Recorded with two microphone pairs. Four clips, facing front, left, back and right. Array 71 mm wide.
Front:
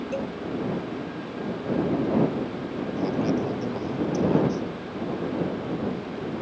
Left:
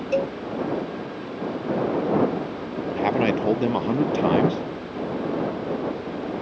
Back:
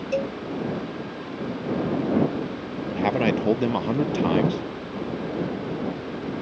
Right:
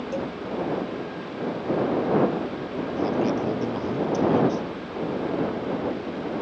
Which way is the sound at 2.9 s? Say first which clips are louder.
Left 3 dB, back 3 dB; 140° left.